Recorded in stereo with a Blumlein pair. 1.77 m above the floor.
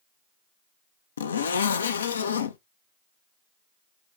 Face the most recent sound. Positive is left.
turn(degrees=70)